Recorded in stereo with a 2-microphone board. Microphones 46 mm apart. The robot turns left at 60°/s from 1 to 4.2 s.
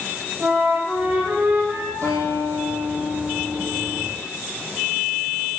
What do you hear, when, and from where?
0.4 s a flute: 50° right, 5.5 m; by 1.9 s 105° right, 5.5 m
2.0 s a guitar: 95° right, 5 m; by 4.0 s 145° left, 5 m